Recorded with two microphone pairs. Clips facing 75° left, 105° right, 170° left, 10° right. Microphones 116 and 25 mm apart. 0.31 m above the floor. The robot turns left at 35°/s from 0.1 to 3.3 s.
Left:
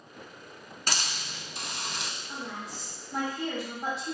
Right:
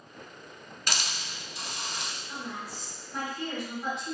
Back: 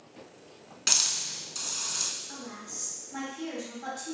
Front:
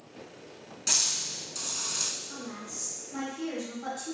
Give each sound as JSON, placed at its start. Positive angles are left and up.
{"t": 0.9, "sound": "a hiss", "azimuth_deg": 125, "distance_m": 0.6}
{"t": 2.3, "sound": "a woman speaking", "azimuth_deg": 130, "distance_m": 2.0}